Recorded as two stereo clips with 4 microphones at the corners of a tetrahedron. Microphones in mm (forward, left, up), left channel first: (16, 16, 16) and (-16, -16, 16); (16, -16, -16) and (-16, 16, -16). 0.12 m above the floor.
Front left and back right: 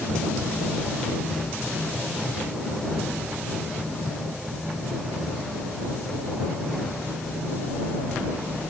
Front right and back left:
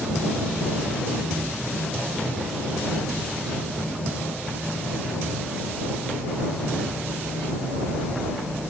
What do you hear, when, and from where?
Only background noise.